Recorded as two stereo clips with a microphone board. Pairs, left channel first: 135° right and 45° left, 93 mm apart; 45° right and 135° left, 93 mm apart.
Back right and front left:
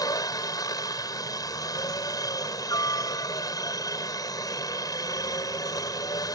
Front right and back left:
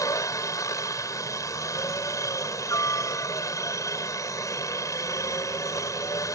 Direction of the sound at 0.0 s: 95° right.